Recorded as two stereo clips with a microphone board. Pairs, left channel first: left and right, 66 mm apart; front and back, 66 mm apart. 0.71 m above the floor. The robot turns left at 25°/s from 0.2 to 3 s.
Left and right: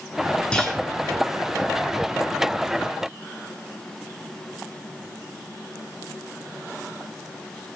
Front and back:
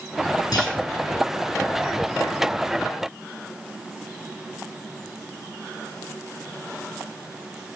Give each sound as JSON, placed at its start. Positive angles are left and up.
{"t": 0.5, "sound": "a clunk", "azimuth_deg": 15, "distance_m": 2.0}